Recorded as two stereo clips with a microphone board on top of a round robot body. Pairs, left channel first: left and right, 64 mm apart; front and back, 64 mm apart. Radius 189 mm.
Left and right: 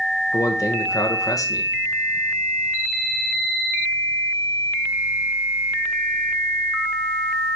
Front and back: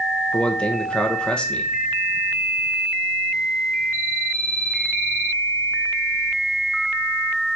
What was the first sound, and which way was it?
A man speaking, 75° left.